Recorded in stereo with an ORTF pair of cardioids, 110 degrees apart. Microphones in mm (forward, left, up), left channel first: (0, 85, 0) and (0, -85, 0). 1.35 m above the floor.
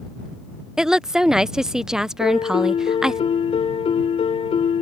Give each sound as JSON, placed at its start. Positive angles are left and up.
{"t": 0.8, "sound": "a woman speaking", "azimuth_deg": -5}
{"t": 2.2, "sound": "a piano", "azimuth_deg": 35}